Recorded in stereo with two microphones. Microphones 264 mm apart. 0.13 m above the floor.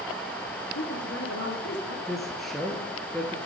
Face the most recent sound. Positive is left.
turn(degrees=0)  # may be behind; listen again after turning